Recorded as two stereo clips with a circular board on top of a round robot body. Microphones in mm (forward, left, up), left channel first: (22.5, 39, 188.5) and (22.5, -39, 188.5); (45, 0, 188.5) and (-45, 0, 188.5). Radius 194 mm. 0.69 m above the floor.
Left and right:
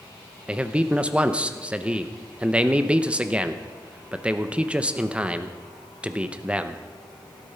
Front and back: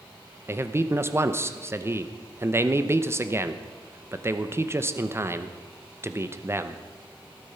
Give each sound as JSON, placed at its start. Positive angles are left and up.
{"t": 0.5, "sound": "a man speaking", "azimuth_deg": -150, "distance_m": 1.2}